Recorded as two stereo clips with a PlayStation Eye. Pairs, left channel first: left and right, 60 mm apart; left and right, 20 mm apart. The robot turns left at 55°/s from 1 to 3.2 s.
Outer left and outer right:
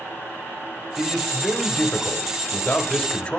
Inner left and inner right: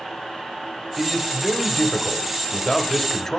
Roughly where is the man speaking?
Centre.